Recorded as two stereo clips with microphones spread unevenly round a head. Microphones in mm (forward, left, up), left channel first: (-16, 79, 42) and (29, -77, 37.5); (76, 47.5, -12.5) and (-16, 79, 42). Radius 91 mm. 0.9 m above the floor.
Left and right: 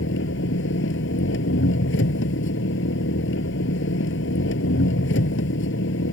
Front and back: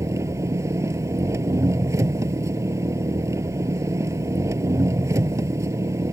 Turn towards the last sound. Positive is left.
turn(degrees=105)